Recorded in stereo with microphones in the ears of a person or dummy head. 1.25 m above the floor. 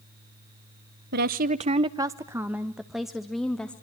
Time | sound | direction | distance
1.1 | a woman speaking | 55° right (ahead or behind) | 0.6 m